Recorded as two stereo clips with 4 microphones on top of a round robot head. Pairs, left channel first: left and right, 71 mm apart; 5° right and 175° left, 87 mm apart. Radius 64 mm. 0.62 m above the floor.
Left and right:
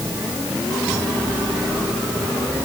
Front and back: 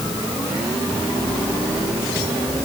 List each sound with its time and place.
Only background noise.